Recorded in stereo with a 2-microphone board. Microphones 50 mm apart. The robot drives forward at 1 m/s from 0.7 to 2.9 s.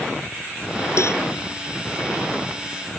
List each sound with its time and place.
1.0 s a cowbell: 80° left; by 1.2 s 70° left (ahead or behind)